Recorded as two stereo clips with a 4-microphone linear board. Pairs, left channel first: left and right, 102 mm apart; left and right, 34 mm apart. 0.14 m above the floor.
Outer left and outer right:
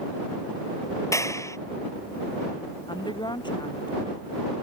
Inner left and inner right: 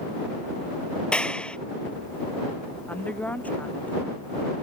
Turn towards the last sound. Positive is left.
turn(degrees=50)  # may be behind; listen again after turning